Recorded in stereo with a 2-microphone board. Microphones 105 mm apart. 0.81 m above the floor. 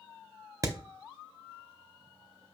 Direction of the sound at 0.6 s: 35° right (ahead or behind).